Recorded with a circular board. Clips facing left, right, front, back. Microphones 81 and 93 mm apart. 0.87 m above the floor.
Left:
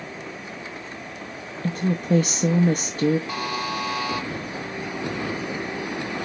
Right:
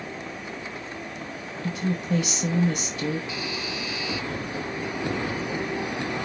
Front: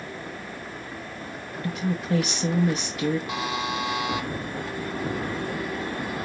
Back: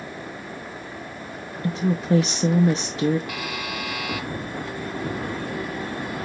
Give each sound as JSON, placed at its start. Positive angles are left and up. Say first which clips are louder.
{"t": 1.6, "sound": "a woman speaking", "louder": "left 4 dB, back 5 dB", "azimuth_deg": 125, "distance_m": 0.7}
{"t": 3.3, "sound": "a buzzer", "louder": "left 5 dB, front 3 dB", "azimuth_deg": 60, "distance_m": 0.8}